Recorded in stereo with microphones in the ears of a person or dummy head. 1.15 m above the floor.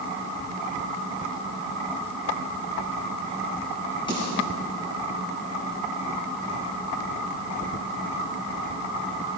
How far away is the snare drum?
About 8 m.